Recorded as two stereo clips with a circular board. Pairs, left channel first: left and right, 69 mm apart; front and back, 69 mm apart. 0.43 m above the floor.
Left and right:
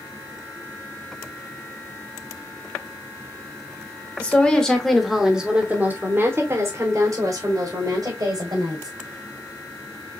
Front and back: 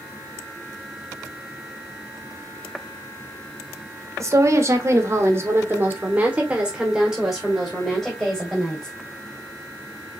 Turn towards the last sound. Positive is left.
turn(degrees=-80)